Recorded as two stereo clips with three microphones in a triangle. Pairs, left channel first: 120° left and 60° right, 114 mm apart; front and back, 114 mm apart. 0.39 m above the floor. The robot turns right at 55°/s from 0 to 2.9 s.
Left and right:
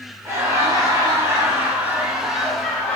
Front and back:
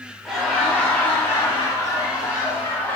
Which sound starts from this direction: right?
Laughter, at 0.2 s.